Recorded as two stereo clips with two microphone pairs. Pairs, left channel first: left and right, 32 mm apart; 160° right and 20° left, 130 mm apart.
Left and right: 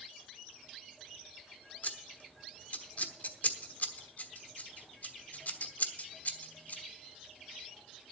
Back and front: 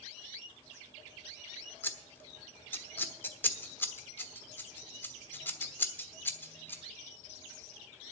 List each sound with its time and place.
1.8 s scissors: 125° left, 1.1 m